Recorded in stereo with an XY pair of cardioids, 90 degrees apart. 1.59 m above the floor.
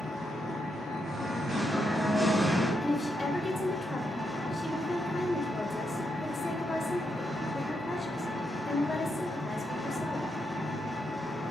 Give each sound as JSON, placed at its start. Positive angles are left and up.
{"t": 0.0, "sound": "an engine running", "azimuth_deg": 0, "distance_m": 1.7}
{"t": 1.0, "sound": "singing", "azimuth_deg": -15, "distance_m": 1.5}
{"t": 2.8, "sound": "a woman speaking", "azimuth_deg": 30, "distance_m": 0.7}